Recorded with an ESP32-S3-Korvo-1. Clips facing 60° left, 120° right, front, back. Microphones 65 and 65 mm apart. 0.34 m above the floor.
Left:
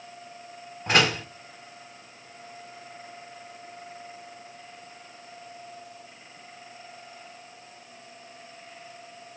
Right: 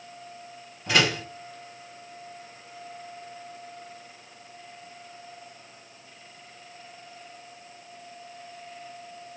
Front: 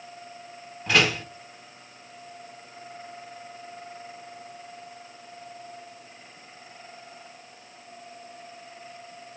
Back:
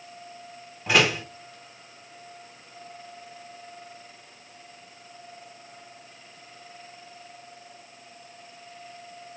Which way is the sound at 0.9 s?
100° left.